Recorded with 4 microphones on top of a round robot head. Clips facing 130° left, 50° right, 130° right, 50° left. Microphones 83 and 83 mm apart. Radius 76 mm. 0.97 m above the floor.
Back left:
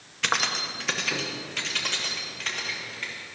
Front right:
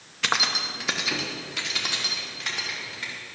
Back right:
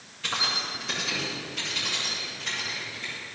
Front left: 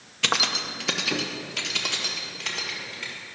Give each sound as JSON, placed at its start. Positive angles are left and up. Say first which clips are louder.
{"t": 0.2, "sound": "keys jangling", "louder": "front right 1 dB, front left 4 dB", "azimuth_deg": 35, "distance_m": 0.7}